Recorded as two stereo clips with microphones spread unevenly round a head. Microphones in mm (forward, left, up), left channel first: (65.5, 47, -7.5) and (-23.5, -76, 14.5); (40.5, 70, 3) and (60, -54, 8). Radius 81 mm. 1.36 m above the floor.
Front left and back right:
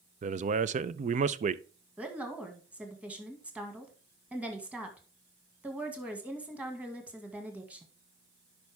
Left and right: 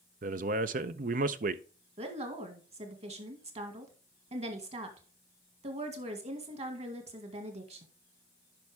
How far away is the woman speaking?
About 2 m.